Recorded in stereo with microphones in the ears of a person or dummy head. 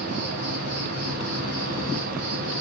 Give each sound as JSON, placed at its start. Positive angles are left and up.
{"t": 0.0, "sound": "an insect", "side_deg": -55, "distance_m": 3.0}